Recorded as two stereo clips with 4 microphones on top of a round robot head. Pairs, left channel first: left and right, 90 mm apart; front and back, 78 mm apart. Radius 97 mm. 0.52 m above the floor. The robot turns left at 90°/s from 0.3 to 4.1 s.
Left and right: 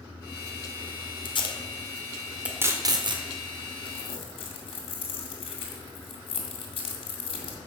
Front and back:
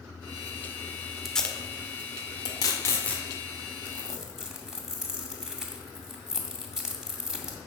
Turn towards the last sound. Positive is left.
turn(degrees=95)